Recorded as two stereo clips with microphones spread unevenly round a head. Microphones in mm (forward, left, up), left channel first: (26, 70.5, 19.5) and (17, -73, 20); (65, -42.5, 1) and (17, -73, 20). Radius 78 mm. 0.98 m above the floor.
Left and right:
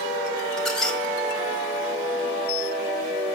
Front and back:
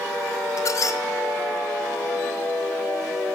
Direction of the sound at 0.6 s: Straight ahead.